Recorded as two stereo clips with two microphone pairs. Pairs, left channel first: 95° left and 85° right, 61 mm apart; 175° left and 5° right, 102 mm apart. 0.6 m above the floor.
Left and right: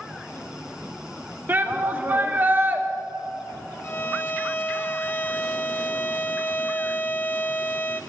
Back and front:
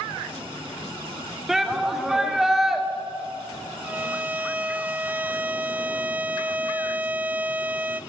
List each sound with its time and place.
1.5 s a shout: 90° right, 1.5 m
3.8 s a violin: 60° left, 0.5 m